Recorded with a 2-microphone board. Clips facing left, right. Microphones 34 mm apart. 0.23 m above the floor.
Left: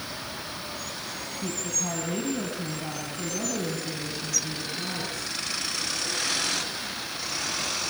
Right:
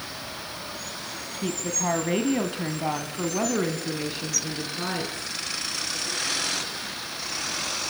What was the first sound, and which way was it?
A woman speaking, 35° right (ahead or behind).